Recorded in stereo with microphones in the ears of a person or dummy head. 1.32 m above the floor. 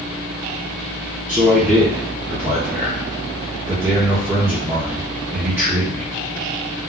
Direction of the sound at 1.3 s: 15° right (ahead or behind).